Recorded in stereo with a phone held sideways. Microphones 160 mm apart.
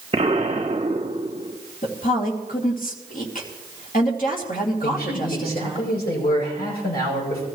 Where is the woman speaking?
60° left (ahead or behind), 2.5 m.